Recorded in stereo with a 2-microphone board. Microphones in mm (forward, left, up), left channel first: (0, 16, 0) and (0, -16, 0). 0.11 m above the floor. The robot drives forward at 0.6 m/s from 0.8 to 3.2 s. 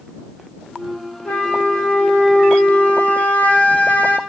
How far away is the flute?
About 2.5 m.